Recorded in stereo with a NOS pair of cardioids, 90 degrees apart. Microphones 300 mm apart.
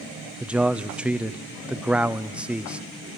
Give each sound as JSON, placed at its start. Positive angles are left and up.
{"t": 0.4, "sound": "a man speaking", "azimuth_deg": -5, "distance_m": 1.0}